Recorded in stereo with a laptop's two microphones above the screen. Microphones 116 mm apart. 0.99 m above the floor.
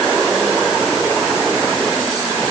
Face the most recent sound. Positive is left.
No sound to turn to.